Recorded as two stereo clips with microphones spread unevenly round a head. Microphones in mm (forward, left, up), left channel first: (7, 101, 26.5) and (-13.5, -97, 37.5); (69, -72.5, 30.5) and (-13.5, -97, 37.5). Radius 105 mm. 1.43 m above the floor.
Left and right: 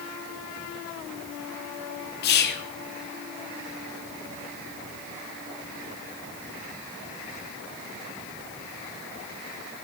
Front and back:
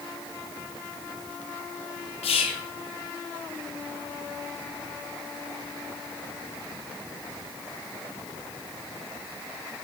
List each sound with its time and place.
2.2 s whispering: 40° left, 0.7 m